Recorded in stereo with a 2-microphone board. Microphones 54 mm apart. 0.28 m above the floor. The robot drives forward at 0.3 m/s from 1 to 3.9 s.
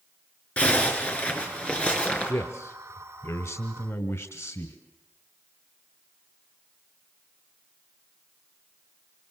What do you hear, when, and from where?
0.6 s a zipper: 25° left (ahead or behind), 4.5 m
2.3 s a man speaking: 60° left (ahead or behind), 2 m; by 4.8 s 65° left (ahead or behind), 2 m